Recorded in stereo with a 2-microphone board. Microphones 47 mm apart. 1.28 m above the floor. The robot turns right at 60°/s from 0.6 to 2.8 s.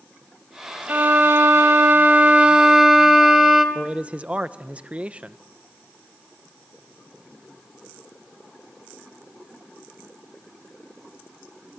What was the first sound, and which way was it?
A violin, 135° right.